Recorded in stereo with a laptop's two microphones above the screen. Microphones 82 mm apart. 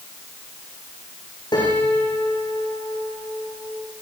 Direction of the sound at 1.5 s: 70° left (ahead or behind).